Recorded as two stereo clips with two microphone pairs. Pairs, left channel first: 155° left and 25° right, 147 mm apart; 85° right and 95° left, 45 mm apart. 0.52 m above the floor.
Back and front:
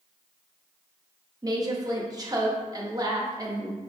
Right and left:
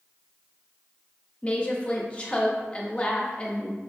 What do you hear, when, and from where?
1.4 s a woman speaking: 55° right, 0.7 m